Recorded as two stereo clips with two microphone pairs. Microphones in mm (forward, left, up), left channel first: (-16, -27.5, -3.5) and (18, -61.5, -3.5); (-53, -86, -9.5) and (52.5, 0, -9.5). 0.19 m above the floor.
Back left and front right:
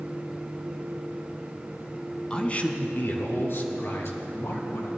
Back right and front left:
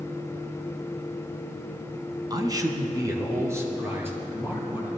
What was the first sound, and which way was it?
A man speaking, 75° left.